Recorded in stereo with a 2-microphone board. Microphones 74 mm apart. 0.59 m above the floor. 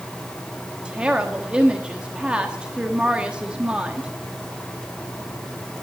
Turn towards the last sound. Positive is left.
turn(degrees=-15)  # may be behind; listen again after turning